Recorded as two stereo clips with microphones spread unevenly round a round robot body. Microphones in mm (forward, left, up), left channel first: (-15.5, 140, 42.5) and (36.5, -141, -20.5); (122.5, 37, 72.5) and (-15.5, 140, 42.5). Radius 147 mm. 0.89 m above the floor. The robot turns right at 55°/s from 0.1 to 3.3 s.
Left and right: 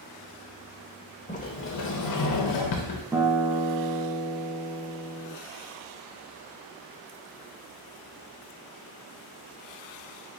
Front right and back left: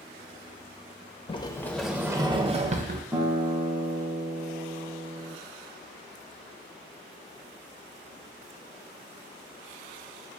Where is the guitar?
150° right, 0.6 m; by 5.3 s 140° right, 0.6 m.